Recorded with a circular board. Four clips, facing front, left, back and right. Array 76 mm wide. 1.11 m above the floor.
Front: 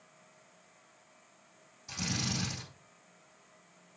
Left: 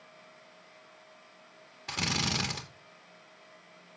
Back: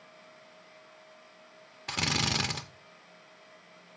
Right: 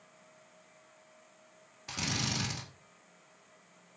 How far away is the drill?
About 2 m.